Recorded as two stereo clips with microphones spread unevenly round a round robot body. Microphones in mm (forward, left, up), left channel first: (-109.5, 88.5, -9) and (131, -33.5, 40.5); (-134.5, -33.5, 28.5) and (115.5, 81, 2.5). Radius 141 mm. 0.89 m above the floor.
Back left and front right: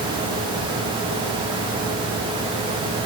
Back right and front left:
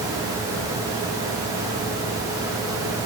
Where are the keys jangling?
No keys jangling in this recording.